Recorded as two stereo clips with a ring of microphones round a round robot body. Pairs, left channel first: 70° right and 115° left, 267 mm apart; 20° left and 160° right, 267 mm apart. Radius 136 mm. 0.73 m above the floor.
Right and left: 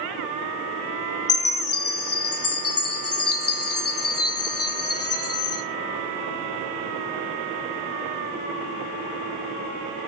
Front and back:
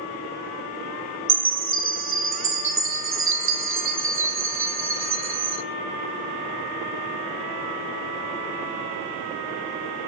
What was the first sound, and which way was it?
A chime, 110° right.